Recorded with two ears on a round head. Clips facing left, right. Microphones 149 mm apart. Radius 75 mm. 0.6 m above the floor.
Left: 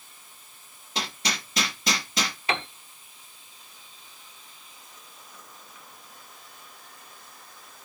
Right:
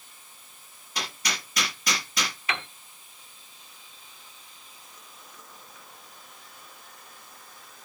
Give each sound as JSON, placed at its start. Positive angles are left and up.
{"t": 0.9, "sound": "hammering", "side_deg": 25, "distance_m": 5.0}
{"t": 2.5, "sound": "a piano", "side_deg": 25, "distance_m": 0.8}